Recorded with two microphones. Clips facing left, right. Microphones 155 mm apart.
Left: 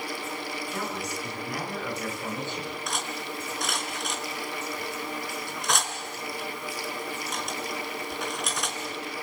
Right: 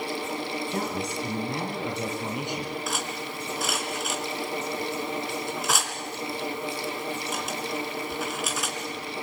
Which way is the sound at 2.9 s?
5° right (ahead or behind).